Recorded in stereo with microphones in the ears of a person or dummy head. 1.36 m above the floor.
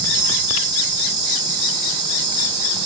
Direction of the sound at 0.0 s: 20° right (ahead or behind).